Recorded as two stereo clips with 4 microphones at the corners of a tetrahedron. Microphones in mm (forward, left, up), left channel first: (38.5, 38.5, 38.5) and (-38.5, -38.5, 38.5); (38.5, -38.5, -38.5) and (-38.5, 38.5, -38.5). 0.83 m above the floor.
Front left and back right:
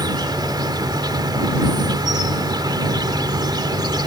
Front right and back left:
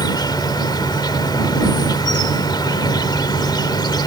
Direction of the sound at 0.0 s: 90° right.